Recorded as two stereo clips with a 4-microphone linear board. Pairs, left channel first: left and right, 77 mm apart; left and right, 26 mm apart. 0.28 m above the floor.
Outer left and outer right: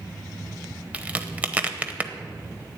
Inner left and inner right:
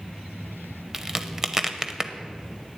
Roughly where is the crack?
Centre.